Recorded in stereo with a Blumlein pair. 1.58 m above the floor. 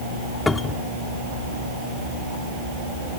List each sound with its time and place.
0.5 s a cupboard door: 15° left